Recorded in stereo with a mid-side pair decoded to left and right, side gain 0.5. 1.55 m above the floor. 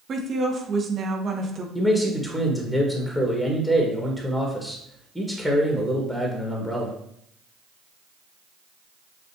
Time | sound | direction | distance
0.1 | a woman speaking | 45° right | 1.0 m
1.8 | a man speaking | 5° left | 1.4 m